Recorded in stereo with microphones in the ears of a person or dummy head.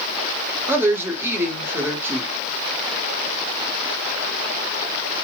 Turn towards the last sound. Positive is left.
turn(degrees=-15)  # may be behind; listen again after turning